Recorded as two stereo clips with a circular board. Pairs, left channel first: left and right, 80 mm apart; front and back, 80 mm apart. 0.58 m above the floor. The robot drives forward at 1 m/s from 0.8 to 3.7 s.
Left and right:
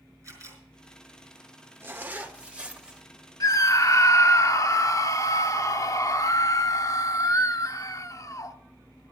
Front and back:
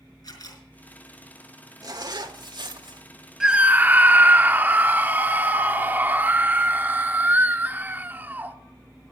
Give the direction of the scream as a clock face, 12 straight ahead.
9 o'clock.